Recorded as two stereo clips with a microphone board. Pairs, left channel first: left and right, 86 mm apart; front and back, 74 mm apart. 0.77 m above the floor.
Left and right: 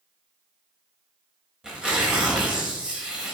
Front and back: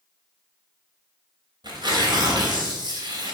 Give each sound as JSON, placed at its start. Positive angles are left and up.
{"t": 1.6, "sound": "tearing paper", "azimuth_deg": -170, "distance_m": 3.0}